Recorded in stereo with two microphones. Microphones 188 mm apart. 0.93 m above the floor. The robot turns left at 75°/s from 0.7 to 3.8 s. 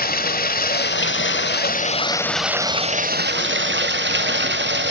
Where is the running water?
130° left, 1.4 m; by 4.9 s 105° right, 1.4 m.